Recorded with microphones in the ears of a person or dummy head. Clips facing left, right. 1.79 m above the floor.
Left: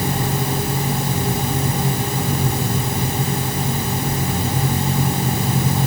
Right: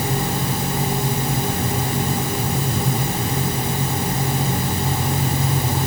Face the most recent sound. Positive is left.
No sound to turn to.